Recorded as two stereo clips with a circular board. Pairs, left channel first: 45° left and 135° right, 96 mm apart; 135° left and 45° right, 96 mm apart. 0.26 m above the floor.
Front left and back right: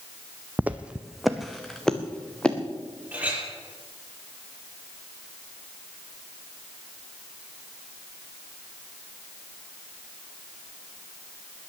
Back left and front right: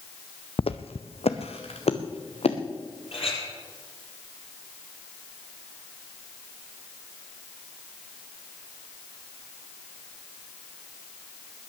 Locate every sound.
0.6 s footsteps: 155° left, 0.9 m; by 2.6 s 125° left, 2.5 m
3.1 s a clink: 150° left, 5 m